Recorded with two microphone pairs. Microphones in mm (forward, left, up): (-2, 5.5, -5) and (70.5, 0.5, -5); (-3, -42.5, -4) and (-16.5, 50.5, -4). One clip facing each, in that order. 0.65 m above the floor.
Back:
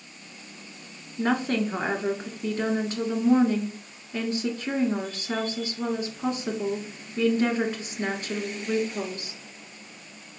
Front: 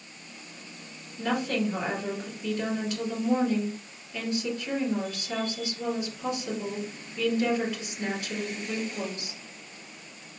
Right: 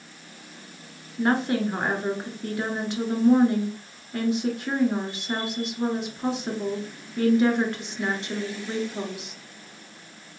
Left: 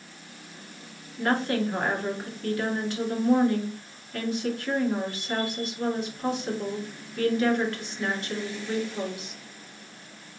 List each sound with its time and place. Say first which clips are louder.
1.2 s a woman speaking: back 3 dB, right 2 dB; 140° right, 1.5 m